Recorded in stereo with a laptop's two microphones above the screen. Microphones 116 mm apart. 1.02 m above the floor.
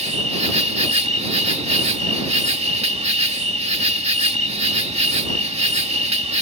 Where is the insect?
70° right (ahead or behind).